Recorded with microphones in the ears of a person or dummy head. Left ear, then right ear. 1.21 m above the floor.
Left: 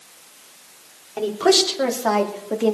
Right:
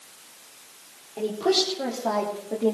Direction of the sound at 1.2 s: 55° left (ahead or behind).